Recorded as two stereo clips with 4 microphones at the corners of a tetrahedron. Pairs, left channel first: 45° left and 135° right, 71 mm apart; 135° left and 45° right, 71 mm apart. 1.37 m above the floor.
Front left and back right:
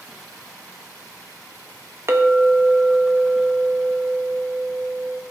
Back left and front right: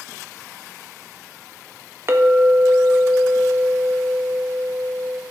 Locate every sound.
2.1 s a clink: 90° right, 1.0 m